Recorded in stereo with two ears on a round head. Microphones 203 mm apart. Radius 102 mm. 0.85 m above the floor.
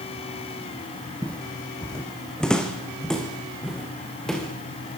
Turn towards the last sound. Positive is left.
turn(degrees=0)  # may be behind; listen again after turning